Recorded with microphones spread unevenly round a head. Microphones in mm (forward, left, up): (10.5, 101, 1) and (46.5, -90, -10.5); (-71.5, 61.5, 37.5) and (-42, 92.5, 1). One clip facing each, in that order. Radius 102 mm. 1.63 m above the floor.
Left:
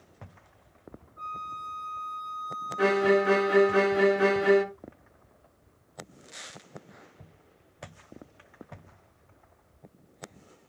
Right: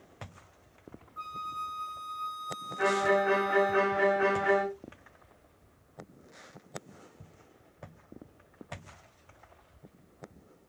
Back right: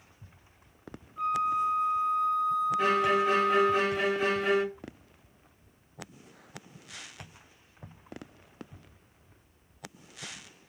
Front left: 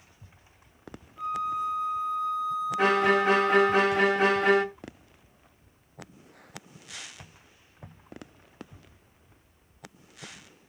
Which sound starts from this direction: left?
A violin, at 2.8 s.